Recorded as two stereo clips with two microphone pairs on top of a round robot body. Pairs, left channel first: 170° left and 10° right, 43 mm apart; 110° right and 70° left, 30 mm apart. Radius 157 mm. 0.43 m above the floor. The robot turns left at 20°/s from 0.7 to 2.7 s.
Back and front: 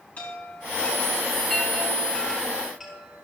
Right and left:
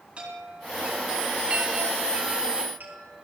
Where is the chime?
120° left, 6 m; by 3.2 s 80° left, 6 m.